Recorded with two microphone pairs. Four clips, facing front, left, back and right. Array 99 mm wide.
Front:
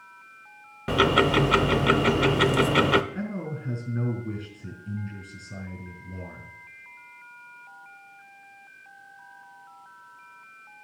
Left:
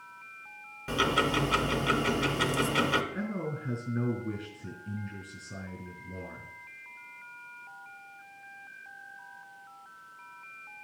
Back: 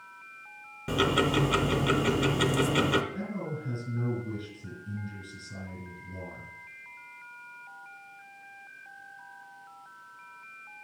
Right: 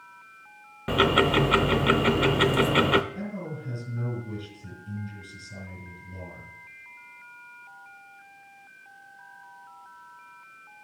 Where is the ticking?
40° right, 0.6 m.